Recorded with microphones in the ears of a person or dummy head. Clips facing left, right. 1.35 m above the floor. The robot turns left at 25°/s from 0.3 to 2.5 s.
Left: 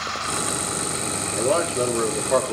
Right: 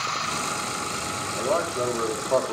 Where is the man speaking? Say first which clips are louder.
Left 4 dB; 45° left (ahead or behind), 3.5 m; by 2.5 s 15° left (ahead or behind), 3.5 m.